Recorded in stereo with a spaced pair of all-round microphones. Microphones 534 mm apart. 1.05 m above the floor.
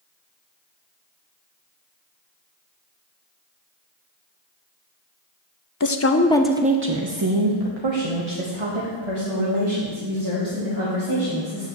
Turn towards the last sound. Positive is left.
turn(degrees=-70)  # may be behind; listen again after turning